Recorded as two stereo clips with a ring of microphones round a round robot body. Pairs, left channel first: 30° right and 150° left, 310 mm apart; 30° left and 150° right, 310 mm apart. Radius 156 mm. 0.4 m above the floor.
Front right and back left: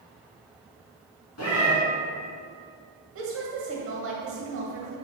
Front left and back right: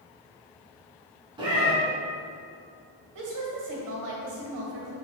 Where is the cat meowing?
75° right, 2 m.